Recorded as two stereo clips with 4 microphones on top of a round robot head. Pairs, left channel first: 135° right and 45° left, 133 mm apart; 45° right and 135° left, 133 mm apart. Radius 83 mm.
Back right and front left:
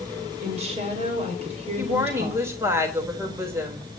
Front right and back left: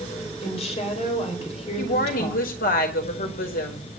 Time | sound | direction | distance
0.4 | a woman speaking | straight ahead | 5 m
1.8 | a woman speaking | 25° right | 4 m